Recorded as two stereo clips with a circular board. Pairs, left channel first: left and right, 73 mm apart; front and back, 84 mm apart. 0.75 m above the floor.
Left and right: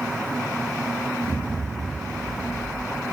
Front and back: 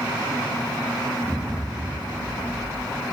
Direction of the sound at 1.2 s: 110° right.